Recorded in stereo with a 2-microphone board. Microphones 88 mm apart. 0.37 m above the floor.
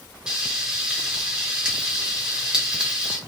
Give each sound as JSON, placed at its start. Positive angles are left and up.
{"t": 0.3, "sound": "frying", "side_deg": -10, "distance_m": 0.9}